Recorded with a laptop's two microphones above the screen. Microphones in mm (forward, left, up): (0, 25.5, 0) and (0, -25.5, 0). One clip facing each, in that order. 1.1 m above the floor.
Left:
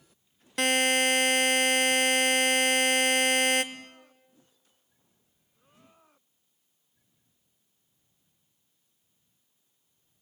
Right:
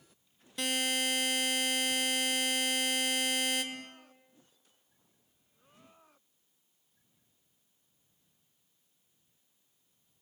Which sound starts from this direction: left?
A buzzer, at 0.6 s.